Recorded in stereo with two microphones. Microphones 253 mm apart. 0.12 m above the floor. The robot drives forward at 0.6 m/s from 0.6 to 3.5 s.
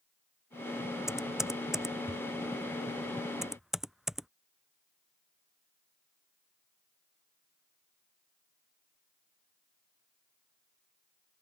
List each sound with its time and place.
1.1 s typing on a keyboard: centre (ahead or behind)